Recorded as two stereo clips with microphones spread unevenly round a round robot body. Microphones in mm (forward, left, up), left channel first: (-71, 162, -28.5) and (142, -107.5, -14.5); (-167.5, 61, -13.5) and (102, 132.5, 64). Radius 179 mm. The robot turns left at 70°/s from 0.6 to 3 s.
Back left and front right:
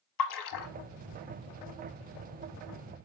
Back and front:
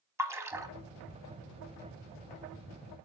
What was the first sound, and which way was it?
A splash, 95° left.